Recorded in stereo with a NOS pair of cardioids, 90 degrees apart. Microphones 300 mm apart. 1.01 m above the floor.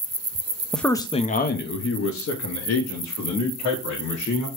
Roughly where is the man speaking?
Ahead.